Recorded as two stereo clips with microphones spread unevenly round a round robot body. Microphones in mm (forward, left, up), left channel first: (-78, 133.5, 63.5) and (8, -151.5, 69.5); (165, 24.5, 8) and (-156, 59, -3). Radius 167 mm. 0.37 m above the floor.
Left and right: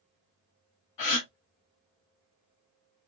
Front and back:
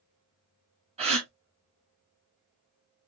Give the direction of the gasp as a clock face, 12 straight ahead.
9 o'clock.